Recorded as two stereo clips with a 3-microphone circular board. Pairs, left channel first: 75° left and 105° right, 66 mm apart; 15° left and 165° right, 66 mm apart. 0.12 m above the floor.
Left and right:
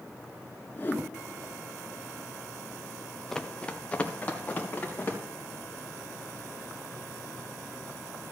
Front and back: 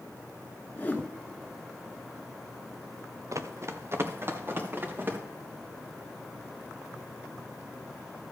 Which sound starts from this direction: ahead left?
A whoosh, at 0.8 s.